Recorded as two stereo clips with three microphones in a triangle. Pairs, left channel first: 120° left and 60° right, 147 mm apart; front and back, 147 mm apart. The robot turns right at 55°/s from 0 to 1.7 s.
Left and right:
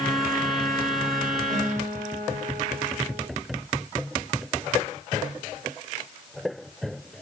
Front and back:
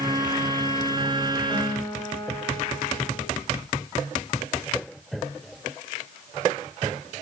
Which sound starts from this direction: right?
A guitar, at 1.5 s.